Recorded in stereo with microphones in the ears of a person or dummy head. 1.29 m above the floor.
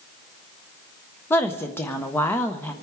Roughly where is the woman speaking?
Centre.